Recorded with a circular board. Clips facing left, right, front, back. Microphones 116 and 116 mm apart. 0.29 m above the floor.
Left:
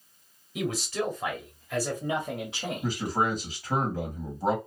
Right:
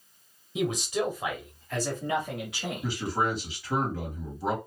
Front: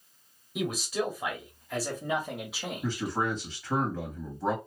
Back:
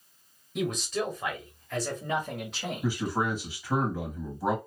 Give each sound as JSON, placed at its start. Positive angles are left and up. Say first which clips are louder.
{"t": 0.6, "sound": "a man speaking", "louder": "right 2 dB, back 1 dB", "azimuth_deg": -75, "distance_m": 1.5}
{"t": 2.8, "sound": "a man speaking", "louder": "left 1 dB, back 1 dB", "azimuth_deg": 105, "distance_m": 2.0}